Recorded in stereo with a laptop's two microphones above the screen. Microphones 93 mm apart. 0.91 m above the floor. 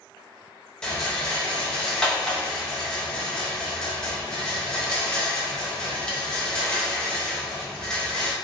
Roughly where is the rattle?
Centre.